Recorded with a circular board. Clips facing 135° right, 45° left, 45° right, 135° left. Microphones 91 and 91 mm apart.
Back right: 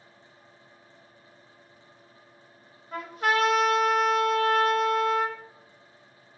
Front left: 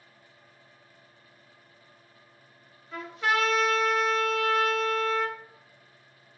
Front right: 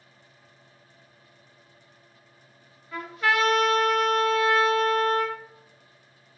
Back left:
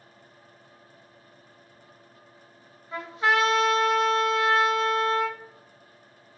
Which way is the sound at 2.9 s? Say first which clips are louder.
Back right 2 dB, back left 1 dB; 165° right.